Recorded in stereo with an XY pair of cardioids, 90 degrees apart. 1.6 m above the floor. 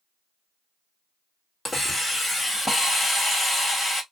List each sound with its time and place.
1.6 s a hiss: 30° left, 1.4 m